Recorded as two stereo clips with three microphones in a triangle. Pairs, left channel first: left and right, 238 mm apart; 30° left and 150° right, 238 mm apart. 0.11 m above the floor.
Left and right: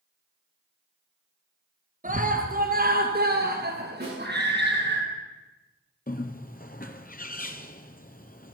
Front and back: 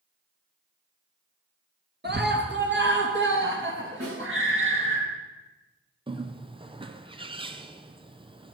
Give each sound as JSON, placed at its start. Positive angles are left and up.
{"t": 2.0, "sound": "a scream", "azimuth_deg": -130, "distance_m": 2.5}
{"t": 4.0, "sound": "a snare drum", "azimuth_deg": -140, "distance_m": 10.0}
{"t": 6.1, "sound": "a bird", "azimuth_deg": 145, "distance_m": 0.8}